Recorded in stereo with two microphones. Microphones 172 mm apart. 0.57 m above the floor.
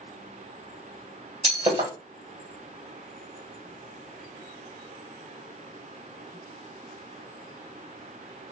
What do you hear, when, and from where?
1.4 s breaking glass: 30° right (ahead or behind), 1.6 m